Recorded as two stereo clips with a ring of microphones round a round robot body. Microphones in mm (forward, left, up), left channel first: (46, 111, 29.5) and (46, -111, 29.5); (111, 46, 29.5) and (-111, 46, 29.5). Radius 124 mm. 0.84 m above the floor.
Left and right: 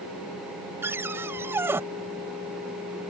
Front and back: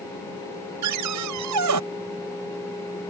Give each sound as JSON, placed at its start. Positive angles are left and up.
{"t": 0.8, "sound": "a cupboard door", "azimuth_deg": -170}